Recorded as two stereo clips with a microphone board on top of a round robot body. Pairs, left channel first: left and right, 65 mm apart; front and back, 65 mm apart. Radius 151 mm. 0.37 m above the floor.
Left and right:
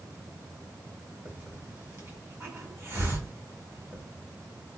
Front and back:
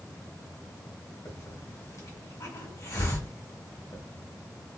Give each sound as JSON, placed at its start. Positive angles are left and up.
{"t": 1.2, "sound": "a hiss", "azimuth_deg": -40, "distance_m": 1.6}